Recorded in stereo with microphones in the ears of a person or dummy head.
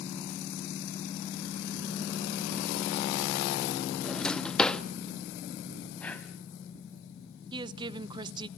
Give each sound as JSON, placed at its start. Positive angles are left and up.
{"t": 4.0, "sound": "a drawer", "side_deg": 5, "distance_m": 1.1}
{"t": 6.0, "sound": "breathing", "side_deg": 0, "distance_m": 1.6}
{"t": 7.5, "sound": "a woman speaking", "side_deg": -15, "distance_m": 0.7}